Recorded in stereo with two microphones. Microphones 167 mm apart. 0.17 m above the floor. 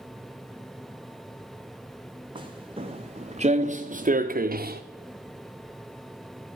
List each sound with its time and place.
2.4 s footsteps: 30° right (ahead or behind), 1.9 m; by 4.8 s 70° right (ahead or behind), 1.1 m